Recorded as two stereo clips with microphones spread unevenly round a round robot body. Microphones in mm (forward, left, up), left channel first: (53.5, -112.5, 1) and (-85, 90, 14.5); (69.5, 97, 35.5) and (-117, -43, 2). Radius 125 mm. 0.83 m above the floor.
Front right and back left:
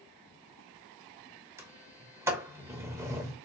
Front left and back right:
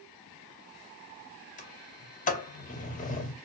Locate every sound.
1.6 s a sliding door: 55° left, 0.8 m